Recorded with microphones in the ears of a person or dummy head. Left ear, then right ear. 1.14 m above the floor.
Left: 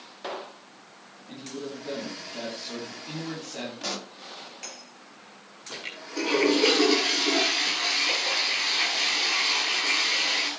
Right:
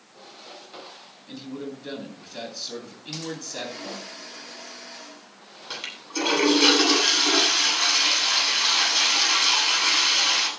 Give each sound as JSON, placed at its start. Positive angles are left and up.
{"t": 1.3, "sound": "a man speaking", "side_deg": -50, "distance_m": 9.5}
{"t": 3.8, "sound": "a pop", "side_deg": 75, "distance_m": 2.5}
{"t": 5.7, "sound": "a toilet flushing", "side_deg": -55, "distance_m": 10.0}